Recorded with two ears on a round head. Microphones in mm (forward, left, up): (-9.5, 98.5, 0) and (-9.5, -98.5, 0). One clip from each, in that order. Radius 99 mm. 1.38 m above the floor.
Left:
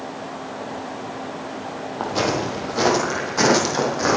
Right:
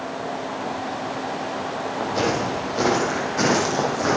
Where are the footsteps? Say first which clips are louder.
Left 1 dB; 20° left (ahead or behind), 3 m; by 4.2 s 30° left (ahead or behind), 4 m.